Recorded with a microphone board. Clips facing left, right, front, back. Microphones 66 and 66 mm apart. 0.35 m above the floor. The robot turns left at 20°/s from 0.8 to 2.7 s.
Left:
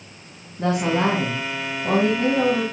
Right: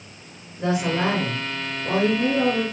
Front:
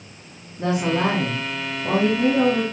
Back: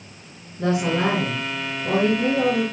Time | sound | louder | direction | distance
0.6 | a woman speaking | left 2 dB, even | 75° left | 3 m